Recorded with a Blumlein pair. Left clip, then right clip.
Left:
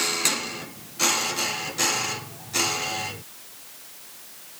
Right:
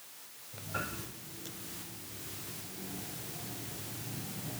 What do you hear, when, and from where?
Only background noise.